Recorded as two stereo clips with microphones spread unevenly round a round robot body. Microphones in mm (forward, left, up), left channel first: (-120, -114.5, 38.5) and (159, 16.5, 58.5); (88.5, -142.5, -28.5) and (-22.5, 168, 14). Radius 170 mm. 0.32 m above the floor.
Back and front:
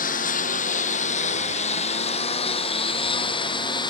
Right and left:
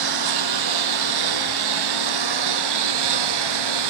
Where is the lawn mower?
140° left; by 3.9 s 125° left.